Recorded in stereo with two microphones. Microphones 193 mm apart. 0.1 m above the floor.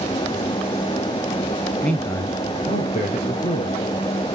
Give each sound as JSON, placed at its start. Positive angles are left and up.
{"t": 1.8, "sound": "a man speaking", "side_deg": 5, "distance_m": 1.3}